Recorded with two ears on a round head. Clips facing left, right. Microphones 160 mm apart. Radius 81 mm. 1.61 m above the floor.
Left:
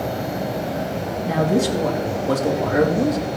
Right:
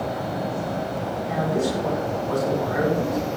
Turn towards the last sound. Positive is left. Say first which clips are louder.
# left 5 dB
turn(degrees=70)  # may be behind; listen again after turning